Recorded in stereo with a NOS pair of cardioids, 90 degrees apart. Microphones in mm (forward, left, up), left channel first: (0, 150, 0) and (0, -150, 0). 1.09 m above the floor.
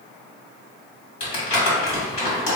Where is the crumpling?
65° left, 1.9 m.